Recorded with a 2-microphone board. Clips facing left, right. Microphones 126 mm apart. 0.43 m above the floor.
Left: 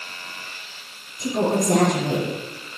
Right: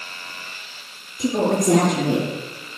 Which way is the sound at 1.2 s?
80° right.